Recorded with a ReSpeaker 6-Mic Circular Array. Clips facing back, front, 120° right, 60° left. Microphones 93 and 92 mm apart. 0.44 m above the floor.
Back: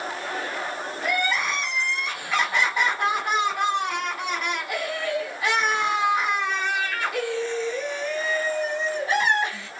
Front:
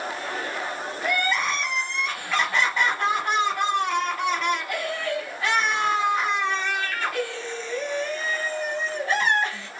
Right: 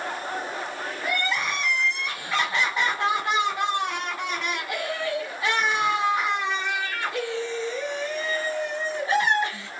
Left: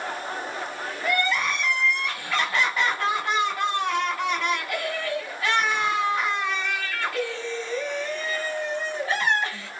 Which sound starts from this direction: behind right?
Crying, at 1.0 s.